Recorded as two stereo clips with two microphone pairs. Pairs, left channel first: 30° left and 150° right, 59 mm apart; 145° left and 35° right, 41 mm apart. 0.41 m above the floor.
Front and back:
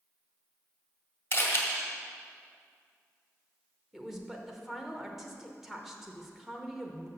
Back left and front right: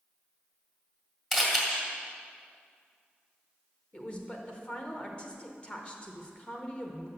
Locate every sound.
1.3 s a camera shutter: 65° left, 1.9 m
3.9 s a woman speaking: 130° left, 0.9 m